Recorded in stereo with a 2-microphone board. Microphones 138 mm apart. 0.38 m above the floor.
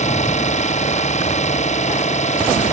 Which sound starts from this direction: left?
An engine running, at 0.0 s.